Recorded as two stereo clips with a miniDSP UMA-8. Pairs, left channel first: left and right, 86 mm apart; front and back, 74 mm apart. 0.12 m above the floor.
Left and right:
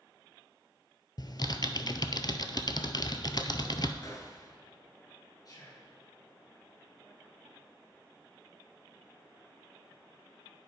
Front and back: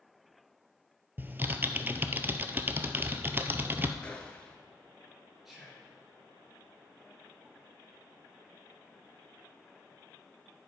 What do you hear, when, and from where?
1.2 s typing on a keyboard: 120° left, 0.5 m
4.0 s a gunshot: 70° left, 1.1 m
5.5 s whispering: 95° left, 2 m